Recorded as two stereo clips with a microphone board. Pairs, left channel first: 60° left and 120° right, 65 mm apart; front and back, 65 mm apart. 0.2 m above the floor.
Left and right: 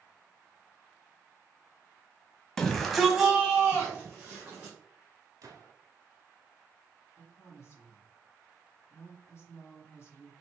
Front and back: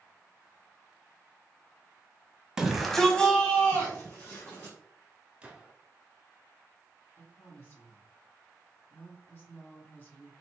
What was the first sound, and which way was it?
A shout, 120° left.